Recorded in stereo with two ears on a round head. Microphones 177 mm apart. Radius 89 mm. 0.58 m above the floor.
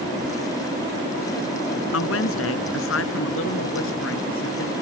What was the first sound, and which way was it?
A woman speaking, 75° left (ahead or behind).